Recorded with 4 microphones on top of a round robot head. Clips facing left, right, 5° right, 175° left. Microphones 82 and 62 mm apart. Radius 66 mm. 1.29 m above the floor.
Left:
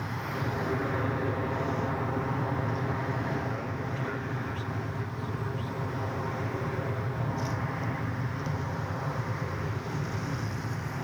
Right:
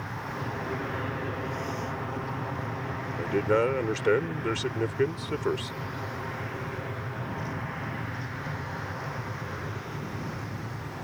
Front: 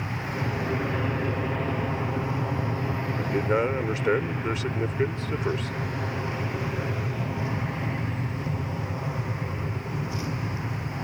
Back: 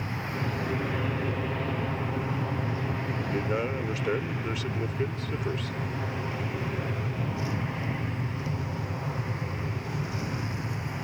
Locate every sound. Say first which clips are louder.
0.0 s an aircraft: left 1 dB, front 2 dB; 45° left
3.1 s a man speaking: right 7 dB, front 6 dB; 75° right